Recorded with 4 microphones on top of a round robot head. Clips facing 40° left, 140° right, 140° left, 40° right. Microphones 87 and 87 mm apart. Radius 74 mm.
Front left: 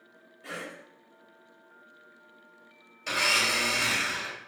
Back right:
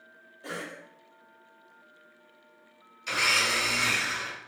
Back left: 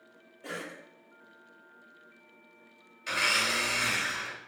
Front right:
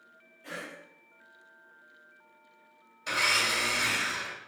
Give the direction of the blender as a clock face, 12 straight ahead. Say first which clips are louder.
Even, front right 1 dB; 11 o'clock.